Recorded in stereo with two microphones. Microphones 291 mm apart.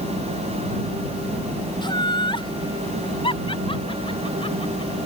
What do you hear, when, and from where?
1.8 s laughter: 15° left (ahead or behind); by 4.9 s 20° left (ahead or behind)